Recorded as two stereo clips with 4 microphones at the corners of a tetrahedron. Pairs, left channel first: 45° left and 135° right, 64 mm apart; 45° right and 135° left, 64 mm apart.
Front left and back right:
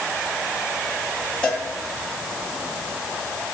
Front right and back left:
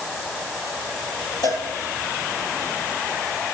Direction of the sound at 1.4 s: 25° right.